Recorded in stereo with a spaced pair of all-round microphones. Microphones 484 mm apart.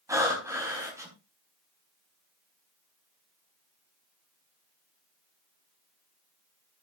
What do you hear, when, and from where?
0.1 s breathing: 5° right (ahead or behind), 4 m